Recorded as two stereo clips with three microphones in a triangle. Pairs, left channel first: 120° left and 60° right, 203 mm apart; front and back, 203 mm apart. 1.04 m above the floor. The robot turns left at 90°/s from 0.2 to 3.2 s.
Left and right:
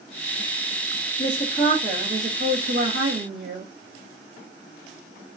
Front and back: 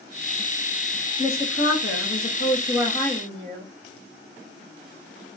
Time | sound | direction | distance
1.2 | a woman speaking | 80° left | 0.7 m